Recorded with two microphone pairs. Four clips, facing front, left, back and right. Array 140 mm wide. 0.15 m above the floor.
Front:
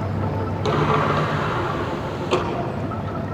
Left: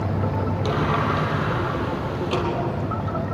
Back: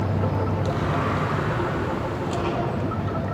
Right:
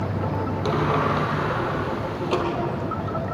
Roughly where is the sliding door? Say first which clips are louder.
Right 1 dB, front 10 dB; ahead.